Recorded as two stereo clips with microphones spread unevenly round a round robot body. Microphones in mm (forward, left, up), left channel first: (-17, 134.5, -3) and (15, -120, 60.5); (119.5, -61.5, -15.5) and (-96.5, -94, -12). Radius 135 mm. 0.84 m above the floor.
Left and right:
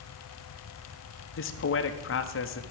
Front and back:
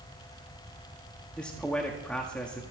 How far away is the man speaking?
About 1.4 m.